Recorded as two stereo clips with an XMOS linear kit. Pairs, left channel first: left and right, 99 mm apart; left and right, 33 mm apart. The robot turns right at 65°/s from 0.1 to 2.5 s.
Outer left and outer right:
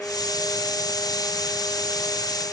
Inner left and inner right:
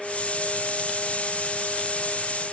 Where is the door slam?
No door slam in this recording.